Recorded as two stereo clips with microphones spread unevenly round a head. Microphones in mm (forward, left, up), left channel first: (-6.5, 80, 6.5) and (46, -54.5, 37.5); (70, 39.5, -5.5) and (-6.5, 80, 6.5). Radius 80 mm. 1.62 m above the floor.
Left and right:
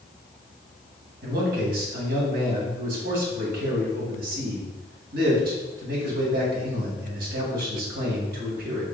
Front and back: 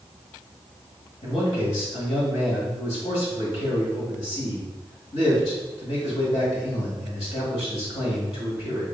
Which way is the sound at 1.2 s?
55° right.